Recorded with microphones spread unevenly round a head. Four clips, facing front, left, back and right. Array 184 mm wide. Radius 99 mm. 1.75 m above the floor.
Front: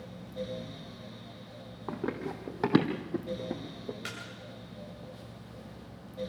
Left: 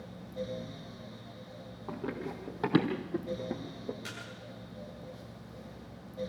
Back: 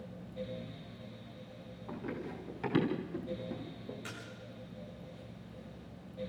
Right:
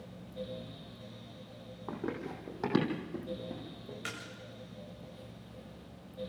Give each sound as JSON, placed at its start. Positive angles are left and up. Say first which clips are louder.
{"t": 1.9, "sound": "running footsteps", "louder": "left 1 dB, front 6 dB", "azimuth_deg": -5, "distance_m": 3.0}
{"t": 4.0, "sound": "a splash", "louder": "right 1 dB, front 4 dB", "azimuth_deg": -40, "distance_m": 9.0}